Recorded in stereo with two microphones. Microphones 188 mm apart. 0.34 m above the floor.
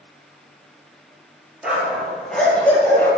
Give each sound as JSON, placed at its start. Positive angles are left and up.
{"t": 1.6, "sound": "a dog barking", "side_deg": -5, "distance_m": 4.0}